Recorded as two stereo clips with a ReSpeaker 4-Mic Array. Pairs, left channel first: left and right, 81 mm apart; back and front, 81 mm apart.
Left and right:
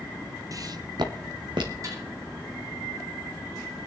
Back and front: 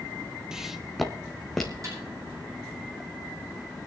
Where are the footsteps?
80° right, 0.9 m; by 1.7 s 95° right, 2.5 m.